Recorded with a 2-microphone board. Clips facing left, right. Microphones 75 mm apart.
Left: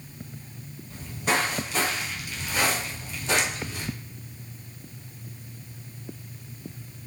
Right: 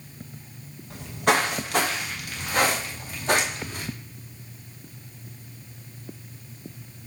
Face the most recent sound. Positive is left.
turn(degrees=-45)  # may be behind; listen again after turning